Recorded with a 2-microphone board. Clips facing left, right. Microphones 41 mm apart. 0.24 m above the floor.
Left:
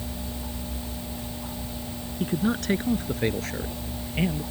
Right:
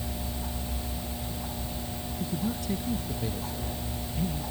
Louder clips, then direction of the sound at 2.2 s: Left 7 dB; 65° left (ahead or behind).